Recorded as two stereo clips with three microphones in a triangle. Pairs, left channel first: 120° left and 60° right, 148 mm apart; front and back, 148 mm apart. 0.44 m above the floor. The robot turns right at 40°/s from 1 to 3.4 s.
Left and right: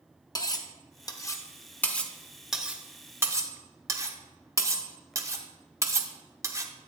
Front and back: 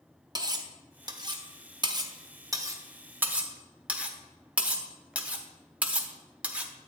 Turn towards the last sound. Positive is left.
turn(degrees=-110)